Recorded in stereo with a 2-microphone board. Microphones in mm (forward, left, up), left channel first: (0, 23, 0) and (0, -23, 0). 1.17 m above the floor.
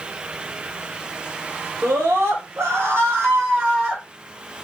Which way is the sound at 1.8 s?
70° right (ahead or behind).